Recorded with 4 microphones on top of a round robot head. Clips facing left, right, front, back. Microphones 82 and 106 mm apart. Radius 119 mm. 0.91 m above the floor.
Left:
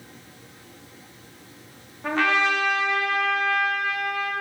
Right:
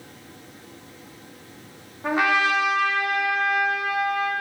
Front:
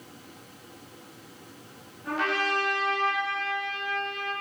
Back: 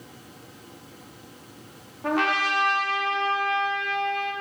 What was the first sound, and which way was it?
A trumpet, 165° right.